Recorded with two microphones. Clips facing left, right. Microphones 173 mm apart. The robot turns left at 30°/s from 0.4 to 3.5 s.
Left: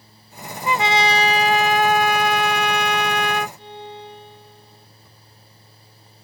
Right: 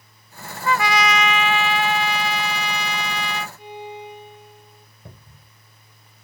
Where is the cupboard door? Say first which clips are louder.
Right 5 dB; 65° right (ahead or behind).